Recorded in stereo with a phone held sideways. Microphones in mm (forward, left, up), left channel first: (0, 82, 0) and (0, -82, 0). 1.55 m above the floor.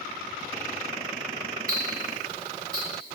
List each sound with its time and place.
1.7 s ticking: 60° right (ahead or behind), 1.0 m